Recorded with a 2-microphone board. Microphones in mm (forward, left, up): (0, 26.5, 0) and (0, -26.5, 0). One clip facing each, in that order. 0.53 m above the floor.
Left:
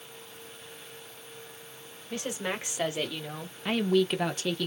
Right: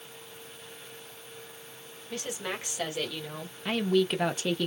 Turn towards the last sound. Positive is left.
turn(degrees=-15)  # may be behind; listen again after turning